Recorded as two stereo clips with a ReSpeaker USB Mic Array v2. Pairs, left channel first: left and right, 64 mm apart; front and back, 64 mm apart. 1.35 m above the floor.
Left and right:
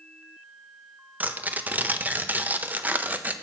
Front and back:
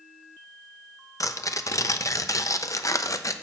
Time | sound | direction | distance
1.2 | tearing paper | 30° right | 0.5 m